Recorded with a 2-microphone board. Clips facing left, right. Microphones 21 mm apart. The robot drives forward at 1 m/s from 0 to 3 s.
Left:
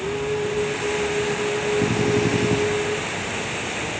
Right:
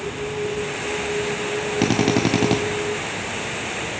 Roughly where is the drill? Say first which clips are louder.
Right 5 dB; right.